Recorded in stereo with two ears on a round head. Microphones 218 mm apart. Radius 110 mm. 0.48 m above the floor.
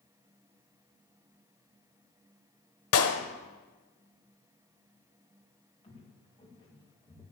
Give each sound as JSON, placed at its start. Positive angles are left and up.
{"t": 2.9, "sound": "a clap", "side_deg": 65, "distance_m": 1.6}
{"t": 5.8, "sound": "footsteps", "side_deg": 20, "distance_m": 6.0}